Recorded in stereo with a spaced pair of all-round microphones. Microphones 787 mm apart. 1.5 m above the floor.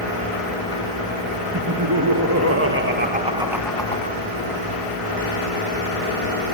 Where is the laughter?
25° right (ahead or behind), 2 m; by 4.2 s 20° left (ahead or behind), 0.7 m.